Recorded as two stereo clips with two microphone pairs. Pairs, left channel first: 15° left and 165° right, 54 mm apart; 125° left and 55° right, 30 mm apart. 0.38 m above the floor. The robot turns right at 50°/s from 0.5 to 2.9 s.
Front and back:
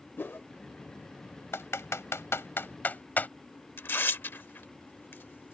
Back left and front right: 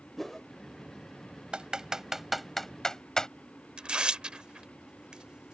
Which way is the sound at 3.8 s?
10° right.